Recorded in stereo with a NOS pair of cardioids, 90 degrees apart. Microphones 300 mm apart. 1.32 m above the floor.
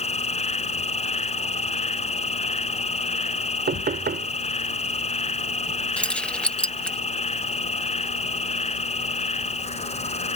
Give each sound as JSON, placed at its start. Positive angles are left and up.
{"t": 0.0, "sound": "an insect", "azimuth_deg": 20}
{"t": 3.7, "sound": "knocking", "azimuth_deg": -35}
{"t": 6.0, "sound": "keys jangling", "azimuth_deg": 5}